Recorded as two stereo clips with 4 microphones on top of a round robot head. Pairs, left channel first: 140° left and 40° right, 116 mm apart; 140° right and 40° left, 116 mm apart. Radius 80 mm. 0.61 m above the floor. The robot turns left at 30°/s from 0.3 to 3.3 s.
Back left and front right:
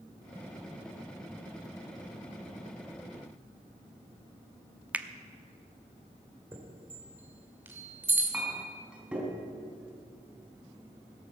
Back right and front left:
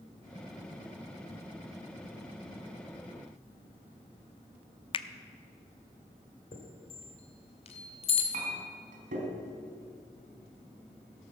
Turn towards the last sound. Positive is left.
turn(degrees=45)